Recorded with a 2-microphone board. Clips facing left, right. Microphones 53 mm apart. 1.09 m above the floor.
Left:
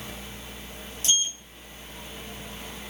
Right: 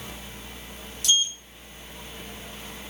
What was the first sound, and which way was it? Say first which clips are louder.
A sliding door: right 4 dB; 35° left (ahead or behind).